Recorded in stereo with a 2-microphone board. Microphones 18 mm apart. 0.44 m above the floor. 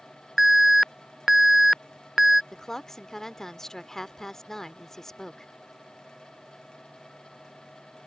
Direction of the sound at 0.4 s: 15° right (ahead or behind).